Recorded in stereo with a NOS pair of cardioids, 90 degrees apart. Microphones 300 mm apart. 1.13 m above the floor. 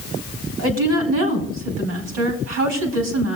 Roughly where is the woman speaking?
Ahead right.